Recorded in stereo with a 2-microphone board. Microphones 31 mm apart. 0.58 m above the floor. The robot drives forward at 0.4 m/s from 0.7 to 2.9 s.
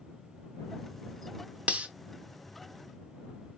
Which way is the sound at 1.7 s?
45° right (ahead or behind).